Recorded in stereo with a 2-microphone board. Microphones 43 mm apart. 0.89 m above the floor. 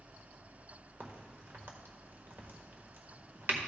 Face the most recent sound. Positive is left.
turn(degrees=-55)  # may be behind; listen again after turning